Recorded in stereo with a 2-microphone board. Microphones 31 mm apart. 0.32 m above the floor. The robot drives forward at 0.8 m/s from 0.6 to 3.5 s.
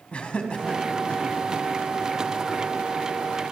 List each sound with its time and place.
0.1 s laughter: 35° left (ahead or behind), 3 m; by 1.4 s 45° left (ahead or behind), 2.5 m